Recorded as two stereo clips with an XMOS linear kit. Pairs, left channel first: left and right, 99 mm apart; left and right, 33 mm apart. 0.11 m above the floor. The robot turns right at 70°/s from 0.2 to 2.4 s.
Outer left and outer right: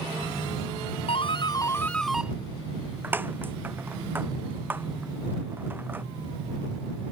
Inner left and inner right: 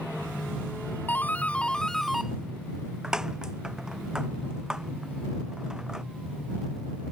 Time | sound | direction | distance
1.1 | a doorbell | 70° left (ahead or behind) | ?